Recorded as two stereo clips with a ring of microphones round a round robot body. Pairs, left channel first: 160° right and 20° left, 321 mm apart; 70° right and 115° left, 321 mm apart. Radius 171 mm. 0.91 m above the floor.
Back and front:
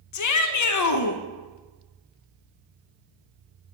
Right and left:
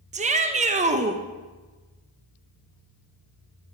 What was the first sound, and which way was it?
A shout, straight behind.